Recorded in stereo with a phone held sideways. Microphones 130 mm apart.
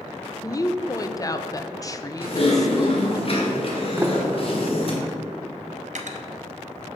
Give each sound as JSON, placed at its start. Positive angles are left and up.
{"t": 0.4, "sound": "a woman speaking", "side_deg": 25, "distance_m": 0.5}
{"t": 2.2, "sound": "typing on a keyboard", "side_deg": 45, "distance_m": 1.6}
{"t": 4.0, "sound": "a sliding door", "side_deg": -20, "distance_m": 0.7}
{"t": 5.9, "sound": "cutlery clinking", "side_deg": -65, "distance_m": 0.8}